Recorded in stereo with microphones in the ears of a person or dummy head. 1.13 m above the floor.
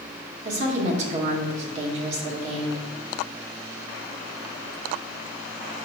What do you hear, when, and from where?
0.5 s a woman speaking: 40° right (ahead or behind), 2 m